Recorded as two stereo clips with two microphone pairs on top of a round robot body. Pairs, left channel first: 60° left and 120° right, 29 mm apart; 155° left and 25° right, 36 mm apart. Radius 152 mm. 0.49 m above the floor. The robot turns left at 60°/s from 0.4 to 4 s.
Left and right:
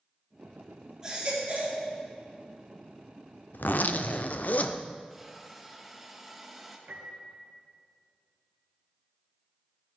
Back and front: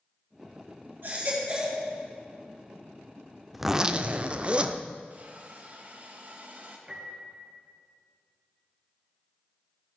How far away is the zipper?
About 0.5 m.